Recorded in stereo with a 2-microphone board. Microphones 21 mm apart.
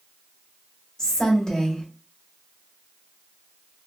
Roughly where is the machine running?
No machine running in this recording.